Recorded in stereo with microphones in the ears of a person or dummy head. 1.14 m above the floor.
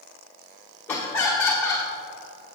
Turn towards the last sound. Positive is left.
turn(degrees=15)  # may be behind; listen again after turning